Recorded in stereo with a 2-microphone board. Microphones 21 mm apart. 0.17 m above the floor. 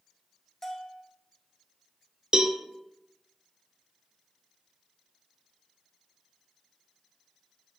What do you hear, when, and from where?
0.6 s a bell: 10° left (ahead or behind), 0.6 m
2.3 s a cowbell: 40° right (ahead or behind), 0.5 m